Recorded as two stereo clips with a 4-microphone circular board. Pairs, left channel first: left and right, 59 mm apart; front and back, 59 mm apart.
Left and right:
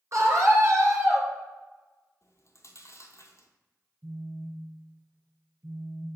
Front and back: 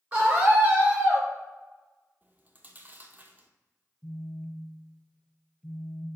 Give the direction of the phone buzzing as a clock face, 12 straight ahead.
2 o'clock.